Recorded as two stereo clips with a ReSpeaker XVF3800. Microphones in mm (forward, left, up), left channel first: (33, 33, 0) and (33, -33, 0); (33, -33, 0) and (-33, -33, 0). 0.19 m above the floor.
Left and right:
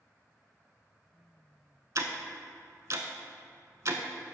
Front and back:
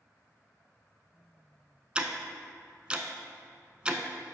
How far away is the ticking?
About 0.5 m.